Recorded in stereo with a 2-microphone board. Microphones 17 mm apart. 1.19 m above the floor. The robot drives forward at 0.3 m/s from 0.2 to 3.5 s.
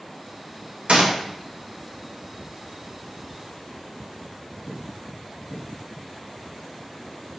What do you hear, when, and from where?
0.9 s a gunshot: 80° right, 1.1 m; by 1.1 s 85° right, 1.1 m